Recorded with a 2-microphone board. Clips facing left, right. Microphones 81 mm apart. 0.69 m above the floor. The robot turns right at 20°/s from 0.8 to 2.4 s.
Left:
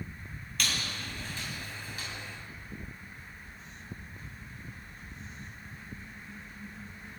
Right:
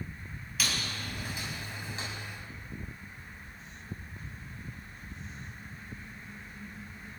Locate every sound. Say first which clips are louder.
0.6 s a squeak: even; 5° right (ahead or behind), 3 m; by 2.1 s 30° right (ahead or behind), 3 m